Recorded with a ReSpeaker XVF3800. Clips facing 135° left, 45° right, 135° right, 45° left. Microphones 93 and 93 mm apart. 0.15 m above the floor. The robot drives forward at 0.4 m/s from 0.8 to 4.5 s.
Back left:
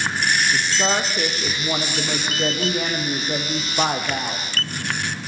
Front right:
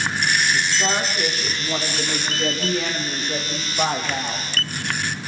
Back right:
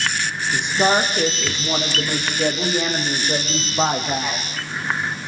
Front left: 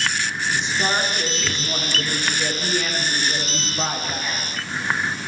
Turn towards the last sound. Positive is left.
turn(degrees=-170)